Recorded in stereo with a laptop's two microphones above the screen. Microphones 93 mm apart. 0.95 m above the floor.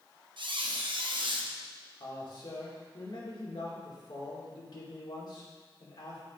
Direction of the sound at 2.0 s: 65° left (ahead or behind).